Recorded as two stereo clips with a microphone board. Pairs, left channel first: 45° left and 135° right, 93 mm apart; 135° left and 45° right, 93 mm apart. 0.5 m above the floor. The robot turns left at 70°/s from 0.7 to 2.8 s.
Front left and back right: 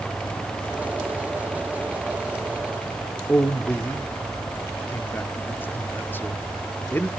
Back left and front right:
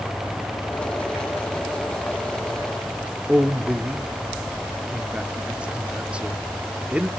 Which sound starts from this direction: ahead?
A man speaking, at 3.3 s.